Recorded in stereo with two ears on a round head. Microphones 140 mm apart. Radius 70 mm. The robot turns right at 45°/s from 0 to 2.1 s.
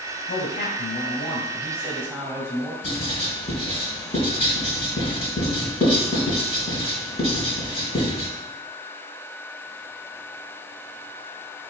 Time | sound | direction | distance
0.3 | a man speaking | 85° left | 2.5 m
2.8 | writing | 40° left (ahead or behind) | 4 m